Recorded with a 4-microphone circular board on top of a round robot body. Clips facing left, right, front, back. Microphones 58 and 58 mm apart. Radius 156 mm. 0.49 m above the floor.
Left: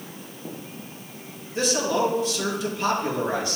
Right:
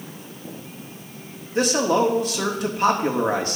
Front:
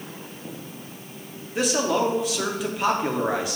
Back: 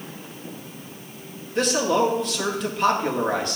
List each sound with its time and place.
1.6 s a man speaking: 80° right, 1.6 m